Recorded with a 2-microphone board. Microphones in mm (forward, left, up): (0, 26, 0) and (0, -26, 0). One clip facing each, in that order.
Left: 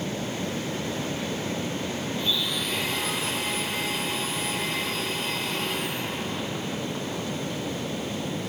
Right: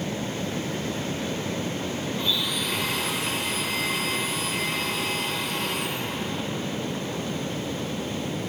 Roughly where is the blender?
Right.